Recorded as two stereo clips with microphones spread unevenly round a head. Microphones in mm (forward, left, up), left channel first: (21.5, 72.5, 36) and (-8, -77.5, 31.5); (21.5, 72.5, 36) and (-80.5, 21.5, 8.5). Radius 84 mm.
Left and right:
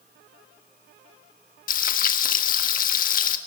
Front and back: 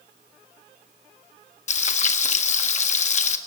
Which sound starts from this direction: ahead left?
Frying, at 1.7 s.